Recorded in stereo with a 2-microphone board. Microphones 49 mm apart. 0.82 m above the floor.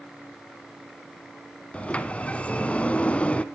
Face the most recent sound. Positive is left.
turn(degrees=25)  # may be behind; listen again after turning